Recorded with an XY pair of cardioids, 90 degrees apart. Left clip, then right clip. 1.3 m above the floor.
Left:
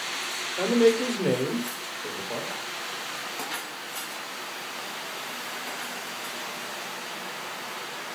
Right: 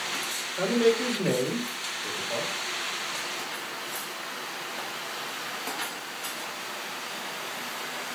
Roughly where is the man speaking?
Ahead.